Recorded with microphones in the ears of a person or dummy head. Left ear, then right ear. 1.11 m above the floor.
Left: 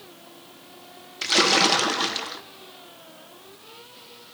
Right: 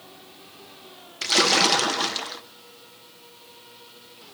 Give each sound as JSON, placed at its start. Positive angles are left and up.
{"t": 1.2, "sound": "a splash", "side_deg": -5, "distance_m": 0.9}